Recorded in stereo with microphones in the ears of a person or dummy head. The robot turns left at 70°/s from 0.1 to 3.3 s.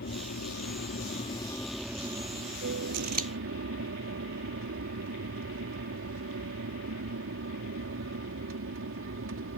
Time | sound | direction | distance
0.0 | an aircraft | 120° left | ?
2.9 | scissors | 55° right (ahead or behind) | ?